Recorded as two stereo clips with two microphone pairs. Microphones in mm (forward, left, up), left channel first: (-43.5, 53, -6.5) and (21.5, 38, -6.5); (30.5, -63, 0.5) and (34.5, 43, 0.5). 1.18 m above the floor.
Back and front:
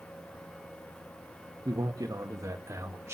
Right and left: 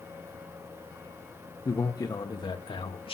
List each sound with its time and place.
1.6 s a man speaking: 35° right, 1.8 m; by 3.1 s 60° right, 2.0 m